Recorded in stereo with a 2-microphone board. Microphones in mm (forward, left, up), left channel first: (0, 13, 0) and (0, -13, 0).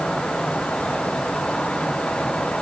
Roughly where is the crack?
I don't hear a crack.